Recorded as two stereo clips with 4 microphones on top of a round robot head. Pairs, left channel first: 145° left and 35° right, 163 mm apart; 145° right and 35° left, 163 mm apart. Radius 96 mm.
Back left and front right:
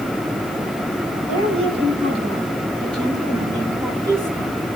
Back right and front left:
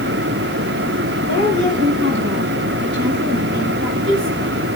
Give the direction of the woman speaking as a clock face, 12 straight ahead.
11 o'clock.